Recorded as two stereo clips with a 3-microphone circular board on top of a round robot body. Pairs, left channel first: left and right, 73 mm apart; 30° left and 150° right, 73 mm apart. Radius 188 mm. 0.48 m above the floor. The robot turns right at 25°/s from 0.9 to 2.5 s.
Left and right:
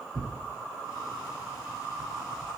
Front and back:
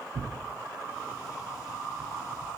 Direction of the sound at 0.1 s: 145° right.